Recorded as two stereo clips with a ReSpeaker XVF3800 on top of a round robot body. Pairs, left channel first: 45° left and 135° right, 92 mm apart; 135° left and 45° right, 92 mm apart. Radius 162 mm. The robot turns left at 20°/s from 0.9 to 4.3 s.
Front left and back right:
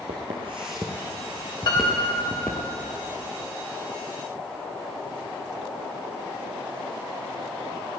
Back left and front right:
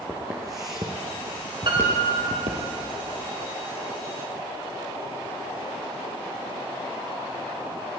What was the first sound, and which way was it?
Footsteps, 115° right.